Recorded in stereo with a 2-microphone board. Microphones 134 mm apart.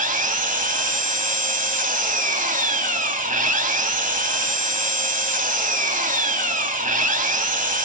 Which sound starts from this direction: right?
An engine running, at 0.0 s.